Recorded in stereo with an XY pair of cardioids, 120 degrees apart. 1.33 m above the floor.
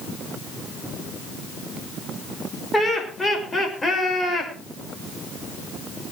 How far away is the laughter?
About 5.5 m.